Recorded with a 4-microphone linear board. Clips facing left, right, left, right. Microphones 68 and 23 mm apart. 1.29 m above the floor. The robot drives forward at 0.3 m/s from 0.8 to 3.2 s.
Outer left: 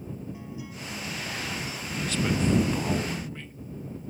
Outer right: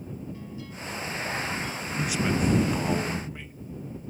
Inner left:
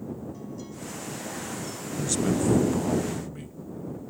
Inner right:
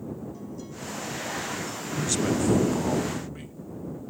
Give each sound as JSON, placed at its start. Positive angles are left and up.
{"t": 0.3, "sound": "a guitar", "side_deg": 15}
{"t": 2.0, "sound": "a man speaking", "side_deg": -15}